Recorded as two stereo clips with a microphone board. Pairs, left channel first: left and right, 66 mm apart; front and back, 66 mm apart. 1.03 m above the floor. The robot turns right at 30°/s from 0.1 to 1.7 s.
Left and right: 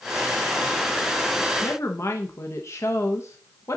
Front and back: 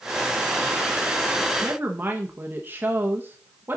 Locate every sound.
1.6 s a woman speaking: 125° left, 0.9 m